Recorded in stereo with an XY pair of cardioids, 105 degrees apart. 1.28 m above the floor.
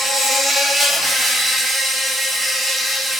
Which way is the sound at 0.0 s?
30° right.